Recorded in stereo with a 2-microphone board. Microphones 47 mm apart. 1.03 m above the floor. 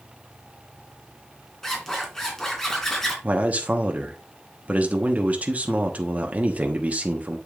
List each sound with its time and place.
1.6 s a zipper: 10° left (ahead or behind), 2.5 m
3.2 s a man speaking: 35° right (ahead or behind), 1.2 m